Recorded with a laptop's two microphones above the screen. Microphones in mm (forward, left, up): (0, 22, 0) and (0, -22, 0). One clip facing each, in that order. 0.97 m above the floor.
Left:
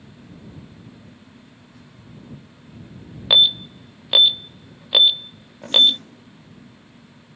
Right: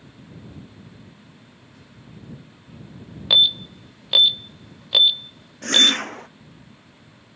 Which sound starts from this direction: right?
A whoosh, at 5.6 s.